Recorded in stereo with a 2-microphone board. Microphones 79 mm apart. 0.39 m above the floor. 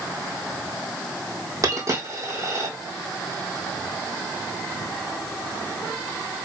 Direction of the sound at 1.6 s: 45° right (ahead or behind).